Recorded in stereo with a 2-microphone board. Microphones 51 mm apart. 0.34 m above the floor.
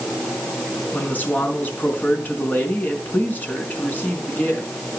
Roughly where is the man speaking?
Left.